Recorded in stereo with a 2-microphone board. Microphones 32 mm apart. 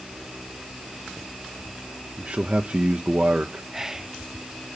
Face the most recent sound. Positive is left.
turn(degrees=-15)  # may be behind; listen again after turning